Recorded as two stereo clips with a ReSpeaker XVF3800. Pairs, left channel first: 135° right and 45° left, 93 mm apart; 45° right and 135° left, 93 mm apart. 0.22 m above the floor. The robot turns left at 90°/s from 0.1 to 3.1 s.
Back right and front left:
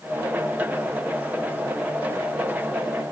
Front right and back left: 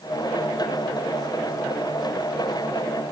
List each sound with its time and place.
Only background noise.